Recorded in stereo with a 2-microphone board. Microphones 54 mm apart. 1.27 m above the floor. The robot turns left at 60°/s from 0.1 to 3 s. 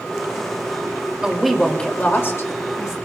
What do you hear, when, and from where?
1.2 s a woman speaking: 165° right, 2.5 m; by 3.0 s 90° left, 2.5 m